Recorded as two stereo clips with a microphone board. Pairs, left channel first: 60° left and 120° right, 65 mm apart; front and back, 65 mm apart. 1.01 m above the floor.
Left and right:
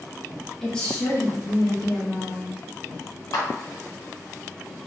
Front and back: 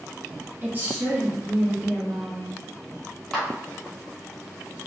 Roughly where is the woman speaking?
Behind left.